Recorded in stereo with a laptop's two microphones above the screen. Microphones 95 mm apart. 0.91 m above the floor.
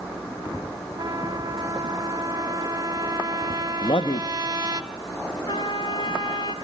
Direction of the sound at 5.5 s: 55° left (ahead or behind).